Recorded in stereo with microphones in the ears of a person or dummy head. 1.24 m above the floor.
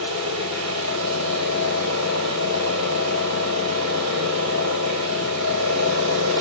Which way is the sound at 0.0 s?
85° right.